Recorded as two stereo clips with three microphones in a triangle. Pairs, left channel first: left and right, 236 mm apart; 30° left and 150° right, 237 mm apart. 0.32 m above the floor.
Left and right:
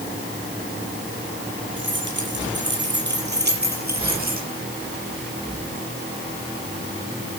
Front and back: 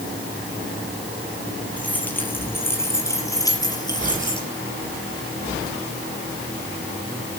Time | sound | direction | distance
1.8 | keys jangling | 55° right | 5 m